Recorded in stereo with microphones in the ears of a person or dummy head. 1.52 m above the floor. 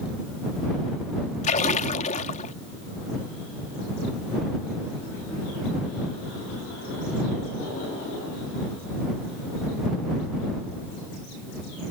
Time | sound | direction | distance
1.4 | a splash | 40° left (ahead or behind) | ?